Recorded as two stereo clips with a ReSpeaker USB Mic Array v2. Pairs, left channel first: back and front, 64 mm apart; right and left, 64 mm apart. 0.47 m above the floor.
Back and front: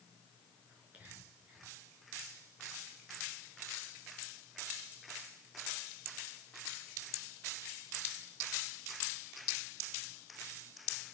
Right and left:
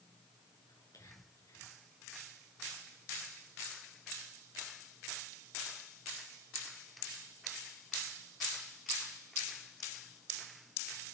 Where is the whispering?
70° right, 7 m.